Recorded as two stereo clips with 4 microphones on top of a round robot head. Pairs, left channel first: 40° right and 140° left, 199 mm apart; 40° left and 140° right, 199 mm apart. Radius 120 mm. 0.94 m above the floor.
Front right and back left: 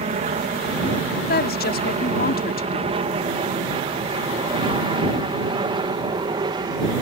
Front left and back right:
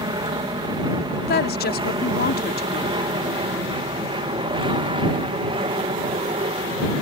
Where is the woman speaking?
Straight ahead.